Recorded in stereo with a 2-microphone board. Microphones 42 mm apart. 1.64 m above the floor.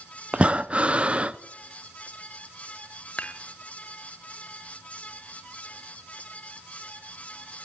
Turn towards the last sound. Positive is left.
turn(degrees=35)  # may be behind; listen again after turning